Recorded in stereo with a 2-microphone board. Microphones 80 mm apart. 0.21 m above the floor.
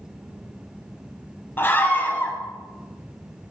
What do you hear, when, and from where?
1.6 s a scream: 30° left (ahead or behind), 1.1 m